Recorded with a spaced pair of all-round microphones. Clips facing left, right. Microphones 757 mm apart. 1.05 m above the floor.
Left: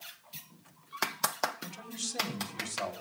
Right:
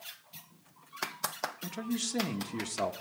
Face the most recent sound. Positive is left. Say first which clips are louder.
# right 9 dB
turn(degrees=-75)  # may be behind; listen again after turning